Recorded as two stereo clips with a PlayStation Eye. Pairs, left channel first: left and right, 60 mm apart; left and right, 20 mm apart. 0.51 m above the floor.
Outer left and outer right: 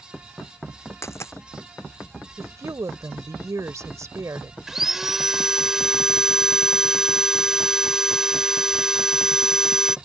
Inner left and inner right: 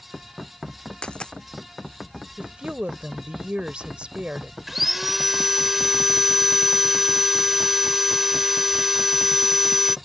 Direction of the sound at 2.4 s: 60° right (ahead or behind).